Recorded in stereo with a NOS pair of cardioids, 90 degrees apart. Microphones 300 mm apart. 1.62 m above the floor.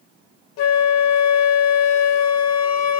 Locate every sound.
0.6 s a flute: 65° left, 0.6 m